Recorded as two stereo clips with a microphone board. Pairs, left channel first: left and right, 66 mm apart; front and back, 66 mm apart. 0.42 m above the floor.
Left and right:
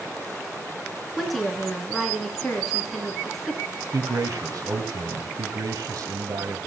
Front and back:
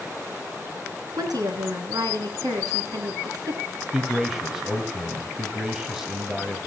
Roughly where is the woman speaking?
Behind.